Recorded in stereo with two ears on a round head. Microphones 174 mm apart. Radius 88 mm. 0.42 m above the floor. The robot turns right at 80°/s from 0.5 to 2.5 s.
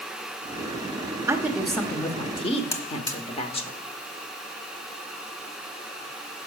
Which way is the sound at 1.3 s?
30° right.